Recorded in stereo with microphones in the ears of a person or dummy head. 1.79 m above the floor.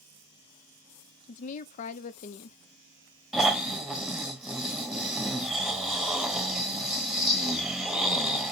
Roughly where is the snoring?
Centre.